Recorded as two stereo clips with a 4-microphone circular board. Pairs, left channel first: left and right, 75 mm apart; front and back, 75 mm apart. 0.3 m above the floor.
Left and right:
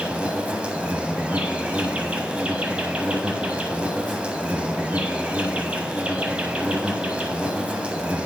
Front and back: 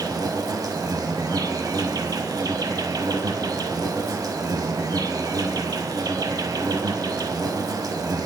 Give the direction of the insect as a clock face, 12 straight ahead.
5 o'clock.